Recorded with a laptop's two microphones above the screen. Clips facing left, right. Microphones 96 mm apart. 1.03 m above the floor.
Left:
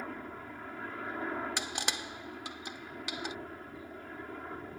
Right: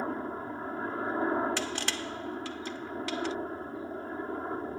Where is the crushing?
15° left (ahead or behind).